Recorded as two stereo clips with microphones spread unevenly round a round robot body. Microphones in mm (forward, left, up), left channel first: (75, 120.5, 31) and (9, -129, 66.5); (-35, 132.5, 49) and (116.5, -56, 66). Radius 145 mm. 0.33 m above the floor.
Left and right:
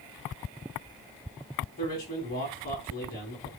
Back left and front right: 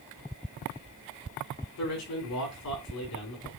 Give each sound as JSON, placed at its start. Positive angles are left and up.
{"t": 1.8, "sound": "a man speaking", "azimuth_deg": 135, "distance_m": 4.5}